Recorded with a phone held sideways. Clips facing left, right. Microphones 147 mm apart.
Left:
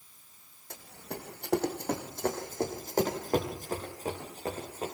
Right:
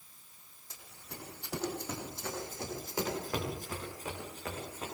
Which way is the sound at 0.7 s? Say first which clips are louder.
Left 9 dB; 70° left (ahead or behind).